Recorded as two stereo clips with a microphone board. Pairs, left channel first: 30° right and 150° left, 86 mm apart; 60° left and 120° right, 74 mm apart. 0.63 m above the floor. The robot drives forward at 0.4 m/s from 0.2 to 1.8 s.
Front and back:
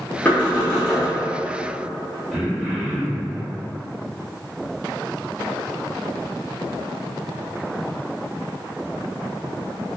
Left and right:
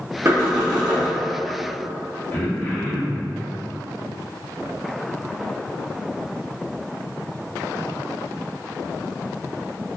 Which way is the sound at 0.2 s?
95° right.